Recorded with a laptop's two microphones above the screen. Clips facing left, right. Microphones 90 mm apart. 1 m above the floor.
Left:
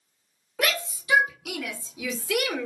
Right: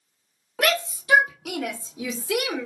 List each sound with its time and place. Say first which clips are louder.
0.6 s a shout: right 4 dB; 60° right (ahead or behind), 1.7 m; by 2.7 s 20° right (ahead or behind), 1.1 m